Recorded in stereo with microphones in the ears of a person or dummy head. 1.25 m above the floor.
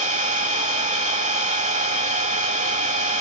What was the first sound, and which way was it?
An engine running, 40° right (ahead or behind).